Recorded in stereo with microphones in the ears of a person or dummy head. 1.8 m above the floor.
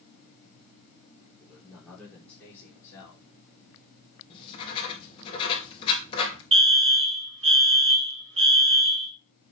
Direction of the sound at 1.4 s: Centre (ahead or behind).